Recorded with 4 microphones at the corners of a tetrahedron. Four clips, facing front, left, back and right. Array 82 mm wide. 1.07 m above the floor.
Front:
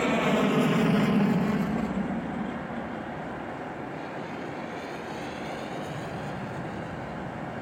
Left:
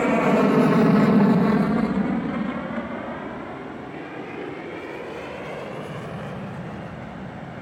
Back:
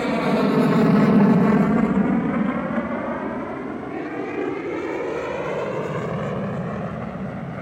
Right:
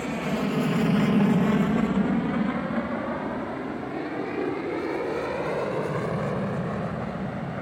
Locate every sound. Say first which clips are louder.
0.0 s an aircraft: left 9 dB, back 4 dB; 100° left; by 7.6 s 150° right